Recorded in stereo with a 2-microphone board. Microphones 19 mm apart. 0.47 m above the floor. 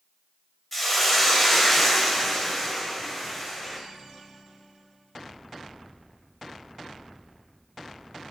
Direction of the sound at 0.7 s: 10° left (ahead or behind).